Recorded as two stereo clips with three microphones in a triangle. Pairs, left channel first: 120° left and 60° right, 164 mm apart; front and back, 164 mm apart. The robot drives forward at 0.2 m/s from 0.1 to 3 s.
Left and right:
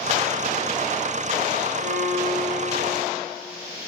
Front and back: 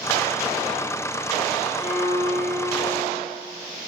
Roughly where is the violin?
Right.